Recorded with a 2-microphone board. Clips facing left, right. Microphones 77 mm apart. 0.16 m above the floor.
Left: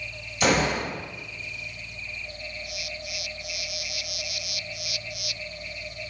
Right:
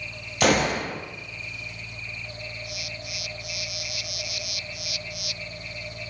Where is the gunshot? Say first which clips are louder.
Right 1 dB; 60° right (ahead or behind), 2 m.